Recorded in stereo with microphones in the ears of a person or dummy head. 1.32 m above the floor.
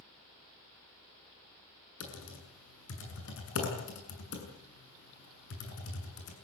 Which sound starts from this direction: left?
Typing on a keyboard, at 2.0 s.